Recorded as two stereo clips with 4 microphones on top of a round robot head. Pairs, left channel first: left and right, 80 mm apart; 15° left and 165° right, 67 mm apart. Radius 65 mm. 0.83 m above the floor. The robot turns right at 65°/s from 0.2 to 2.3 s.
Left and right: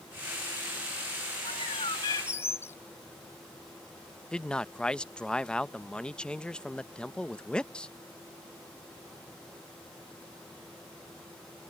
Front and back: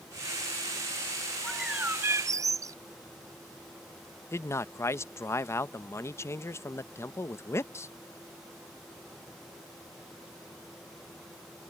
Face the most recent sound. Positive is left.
turn(degrees=15)